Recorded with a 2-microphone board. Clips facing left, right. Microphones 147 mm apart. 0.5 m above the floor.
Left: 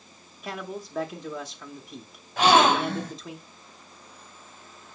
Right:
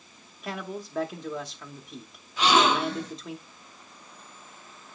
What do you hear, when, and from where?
0.4 s a man speaking: centre (ahead or behind), 0.9 m
2.4 s a gasp: 60° left (ahead or behind), 3 m